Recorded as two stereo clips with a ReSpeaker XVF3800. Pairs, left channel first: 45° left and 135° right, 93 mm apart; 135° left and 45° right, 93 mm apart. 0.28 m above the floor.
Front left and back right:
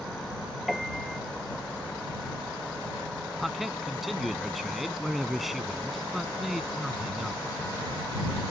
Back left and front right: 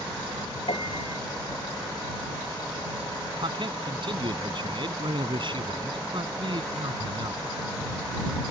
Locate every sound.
0.7 s a piano: 135° left
3.4 s a man speaking: 45° right